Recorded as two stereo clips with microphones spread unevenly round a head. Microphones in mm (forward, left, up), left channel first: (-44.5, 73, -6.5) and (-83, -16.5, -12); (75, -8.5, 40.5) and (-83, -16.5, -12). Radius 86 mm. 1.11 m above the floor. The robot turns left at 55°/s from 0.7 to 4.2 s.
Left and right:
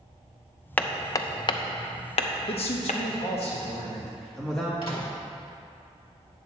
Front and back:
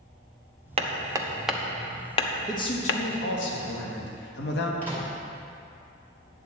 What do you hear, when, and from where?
0.8 s hammering: 140° left, 0.8 m; by 3.0 s 20° left, 0.8 m
2.5 s a man speaking: 75° left, 1.3 m; by 4.7 s 20° right, 1.3 m
4.8 s a microwave: 85° left, 2.5 m